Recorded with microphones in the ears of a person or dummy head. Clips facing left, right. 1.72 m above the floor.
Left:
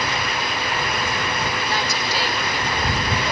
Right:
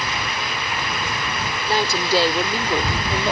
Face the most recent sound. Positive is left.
turn(degrees=-25)  # may be behind; listen again after turning